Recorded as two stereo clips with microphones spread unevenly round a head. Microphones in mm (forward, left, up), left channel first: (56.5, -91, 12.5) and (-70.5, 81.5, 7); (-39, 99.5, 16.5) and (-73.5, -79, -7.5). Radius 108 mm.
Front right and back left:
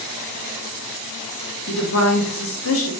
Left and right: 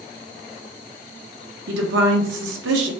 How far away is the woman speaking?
About 0.9 m.